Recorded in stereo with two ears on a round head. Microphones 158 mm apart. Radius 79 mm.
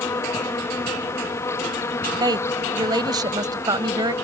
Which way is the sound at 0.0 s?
15° left (ahead or behind).